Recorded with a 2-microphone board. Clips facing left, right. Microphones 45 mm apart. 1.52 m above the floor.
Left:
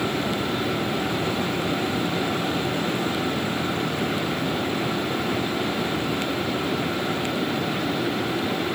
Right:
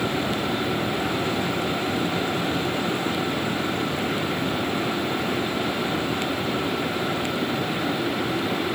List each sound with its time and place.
Only background noise.